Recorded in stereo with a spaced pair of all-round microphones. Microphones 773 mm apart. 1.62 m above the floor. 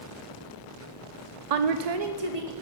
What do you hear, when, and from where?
1.5 s a woman speaking: 55° right (ahead or behind), 0.5 m; by 2.5 s 40° right (ahead or behind), 1.2 m